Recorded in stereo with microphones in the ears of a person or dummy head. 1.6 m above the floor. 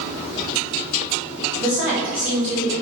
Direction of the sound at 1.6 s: 10° right (ahead or behind).